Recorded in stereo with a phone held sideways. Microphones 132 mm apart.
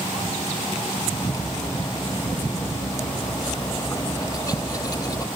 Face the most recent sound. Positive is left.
turn(degrees=30)  # may be behind; listen again after turning